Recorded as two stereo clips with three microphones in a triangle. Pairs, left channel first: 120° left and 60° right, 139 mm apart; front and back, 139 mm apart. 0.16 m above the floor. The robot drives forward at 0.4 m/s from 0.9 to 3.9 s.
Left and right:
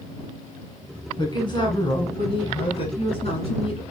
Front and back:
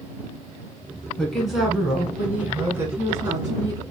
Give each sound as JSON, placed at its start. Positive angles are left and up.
{"t": 1.2, "sound": "a woman speaking", "azimuth_deg": 85, "distance_m": 1.8}